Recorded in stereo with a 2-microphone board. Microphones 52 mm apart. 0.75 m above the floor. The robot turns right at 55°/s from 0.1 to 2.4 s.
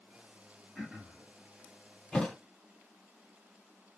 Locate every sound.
0.8 s throat clearing: 5° right (ahead or behind), 2.0 m; by 1.3 s 25° right (ahead or behind), 2.0 m
2.1 s a thud: 10° left (ahead or behind), 1.4 m; by 2.4 s centre (ahead or behind), 1.4 m